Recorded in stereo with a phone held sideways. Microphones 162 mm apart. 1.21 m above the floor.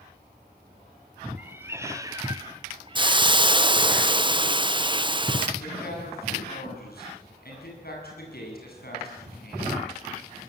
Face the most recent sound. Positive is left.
turn(degrees=65)  # may be behind; listen again after turning